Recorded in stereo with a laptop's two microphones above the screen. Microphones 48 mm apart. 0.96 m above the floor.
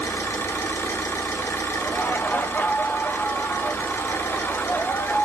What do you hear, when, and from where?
0.0 s an engine running: 65° left (ahead or behind), 0.9 m
1.8 s laughter: 40° left (ahead or behind), 0.7 m